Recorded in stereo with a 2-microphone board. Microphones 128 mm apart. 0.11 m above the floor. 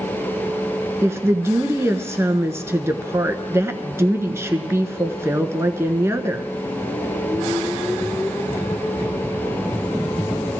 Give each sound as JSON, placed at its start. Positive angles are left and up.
{"t": 1.0, "sound": "a woman speaking", "side_deg": -20, "distance_m": 1.1}